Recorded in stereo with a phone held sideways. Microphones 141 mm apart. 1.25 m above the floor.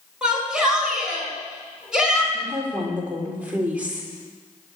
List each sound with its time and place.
0.2 s a shout: 5° right (ahead or behind), 6.5 m
2.3 s a woman speaking: 10° right (ahead or behind), 3.5 m